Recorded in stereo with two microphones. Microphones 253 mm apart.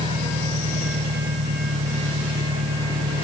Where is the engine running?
65° right (ahead or behind).